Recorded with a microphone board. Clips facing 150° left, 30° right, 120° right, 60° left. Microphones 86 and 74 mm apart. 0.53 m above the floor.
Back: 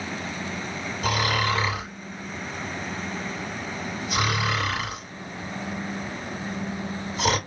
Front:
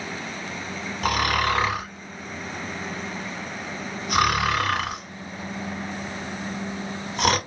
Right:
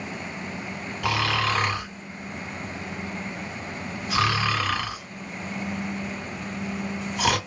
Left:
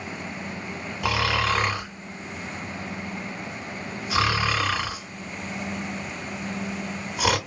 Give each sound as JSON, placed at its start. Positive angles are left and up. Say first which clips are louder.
{"t": 1.0, "sound": "snoring", "louder": "front 2 dB, left 1 dB", "azimuth_deg": -15, "distance_m": 1.9}